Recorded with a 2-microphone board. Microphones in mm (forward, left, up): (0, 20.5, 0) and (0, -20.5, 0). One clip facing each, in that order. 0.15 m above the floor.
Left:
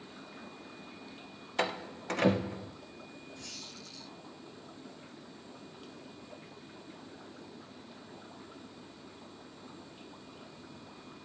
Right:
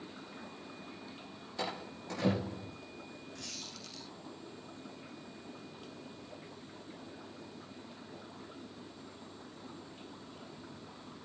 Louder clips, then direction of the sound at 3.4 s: Even; 75° right (ahead or behind).